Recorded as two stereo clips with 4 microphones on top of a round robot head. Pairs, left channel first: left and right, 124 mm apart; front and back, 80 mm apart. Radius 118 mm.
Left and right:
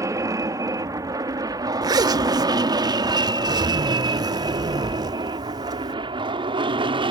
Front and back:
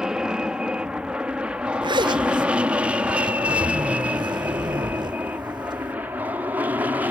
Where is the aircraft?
115° right; by 7.1 s 120° right.